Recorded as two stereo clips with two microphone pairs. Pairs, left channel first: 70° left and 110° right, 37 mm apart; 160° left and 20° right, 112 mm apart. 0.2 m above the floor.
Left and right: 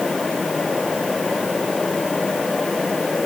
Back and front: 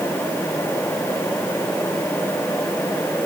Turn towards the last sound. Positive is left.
No sound to turn to.